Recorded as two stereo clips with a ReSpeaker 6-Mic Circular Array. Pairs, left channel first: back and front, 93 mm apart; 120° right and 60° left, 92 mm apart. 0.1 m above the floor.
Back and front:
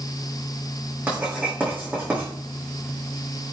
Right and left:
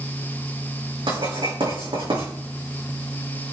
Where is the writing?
70° left, 4.5 m.